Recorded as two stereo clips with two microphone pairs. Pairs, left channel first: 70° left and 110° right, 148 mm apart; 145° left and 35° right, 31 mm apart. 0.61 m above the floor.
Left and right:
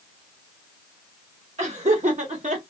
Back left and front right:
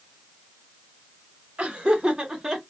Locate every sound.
1.6 s laughter: 85° right, 2 m; by 2.6 s 115° right, 1.8 m